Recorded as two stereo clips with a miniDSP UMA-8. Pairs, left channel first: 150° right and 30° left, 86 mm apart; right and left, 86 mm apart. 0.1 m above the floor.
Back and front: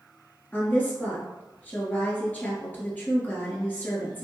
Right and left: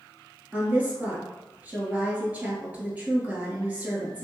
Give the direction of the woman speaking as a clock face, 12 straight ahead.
7 o'clock.